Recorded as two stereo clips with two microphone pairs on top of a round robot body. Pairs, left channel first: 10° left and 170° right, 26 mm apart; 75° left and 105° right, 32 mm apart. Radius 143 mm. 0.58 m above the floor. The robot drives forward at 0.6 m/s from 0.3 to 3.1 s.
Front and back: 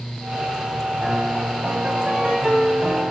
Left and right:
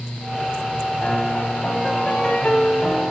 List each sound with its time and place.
1.0 s a piano: 125° left, 5 m; by 3.1 s 135° left, 6 m